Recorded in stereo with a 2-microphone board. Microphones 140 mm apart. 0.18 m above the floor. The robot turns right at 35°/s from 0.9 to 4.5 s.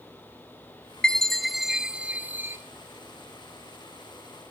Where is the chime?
5° left (ahead or behind), 1.1 m; by 2.6 s 15° right (ahead or behind), 1.1 m.